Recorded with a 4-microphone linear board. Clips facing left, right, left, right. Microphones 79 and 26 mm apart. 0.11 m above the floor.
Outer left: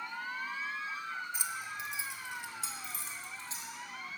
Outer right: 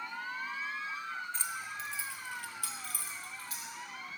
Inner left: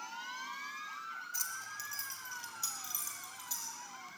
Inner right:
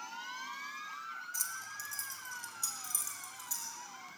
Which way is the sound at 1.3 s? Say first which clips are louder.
Even, even; 10° left (ahead or behind).